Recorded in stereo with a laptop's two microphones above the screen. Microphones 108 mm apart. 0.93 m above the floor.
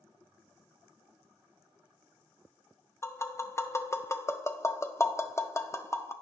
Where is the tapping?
25° left (ahead or behind), 0.7 m.